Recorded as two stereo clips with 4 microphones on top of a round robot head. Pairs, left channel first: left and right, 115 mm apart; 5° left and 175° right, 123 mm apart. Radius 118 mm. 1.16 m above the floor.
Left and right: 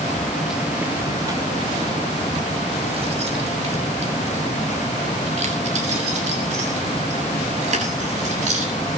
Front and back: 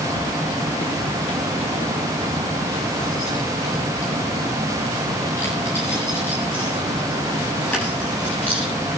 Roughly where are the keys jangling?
Ahead.